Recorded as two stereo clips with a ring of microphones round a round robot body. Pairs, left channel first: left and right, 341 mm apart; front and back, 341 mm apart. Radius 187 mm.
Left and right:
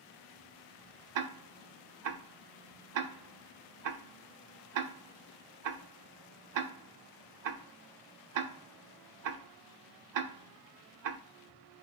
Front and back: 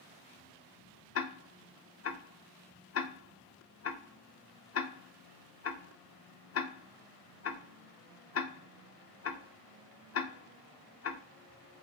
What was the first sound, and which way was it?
Ticking, 55° right.